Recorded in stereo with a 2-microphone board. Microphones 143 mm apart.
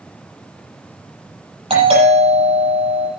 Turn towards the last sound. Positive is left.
turn(degrees=-45)  # may be behind; listen again after turning